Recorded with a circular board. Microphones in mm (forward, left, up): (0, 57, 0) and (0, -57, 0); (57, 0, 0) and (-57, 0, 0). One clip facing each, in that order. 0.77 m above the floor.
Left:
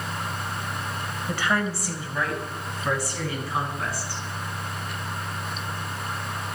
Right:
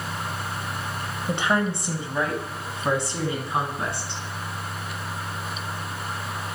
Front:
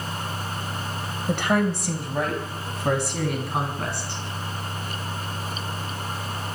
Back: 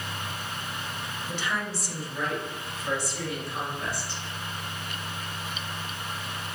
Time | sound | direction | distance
1.3 | a woman speaking | 25° right | 4 m